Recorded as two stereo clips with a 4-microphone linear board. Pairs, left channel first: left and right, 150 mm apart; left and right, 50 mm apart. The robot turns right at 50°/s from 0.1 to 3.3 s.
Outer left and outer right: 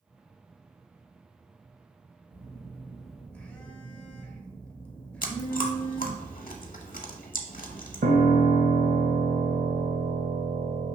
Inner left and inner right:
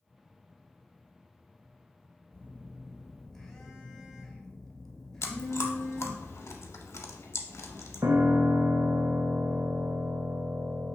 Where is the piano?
75° right (ahead or behind), 0.5 m.